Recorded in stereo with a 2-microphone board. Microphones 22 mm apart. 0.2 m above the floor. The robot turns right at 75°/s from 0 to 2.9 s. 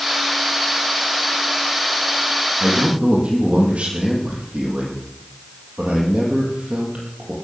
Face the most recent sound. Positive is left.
turn(degrees=-80)